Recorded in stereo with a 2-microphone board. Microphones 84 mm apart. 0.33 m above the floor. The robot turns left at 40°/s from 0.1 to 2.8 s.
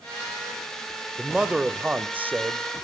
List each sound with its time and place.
1.2 s a man speaking: centre (ahead or behind), 0.9 m; by 2.6 s 25° right (ahead or behind), 0.9 m